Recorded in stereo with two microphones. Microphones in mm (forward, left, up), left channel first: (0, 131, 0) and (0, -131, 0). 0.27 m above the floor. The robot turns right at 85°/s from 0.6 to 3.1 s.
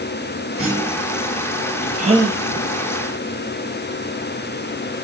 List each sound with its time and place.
0.6 s a clunk: straight behind, 5.5 m; by 1.1 s 135° right, 5.5 m
2.0 s a gasp: 30° right, 3 m; by 2.4 s 5° left, 3 m